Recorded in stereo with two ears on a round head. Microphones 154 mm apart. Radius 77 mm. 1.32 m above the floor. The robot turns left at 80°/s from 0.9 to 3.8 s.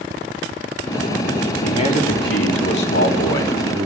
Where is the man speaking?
160° left, 3.5 m; by 3.9 s 15° right, 3.5 m.